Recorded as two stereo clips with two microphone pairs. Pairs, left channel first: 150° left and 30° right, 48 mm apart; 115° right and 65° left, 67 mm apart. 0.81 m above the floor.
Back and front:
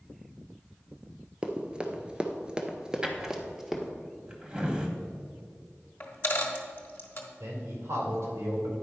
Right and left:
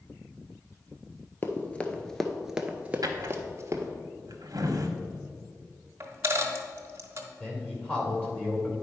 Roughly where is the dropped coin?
Left.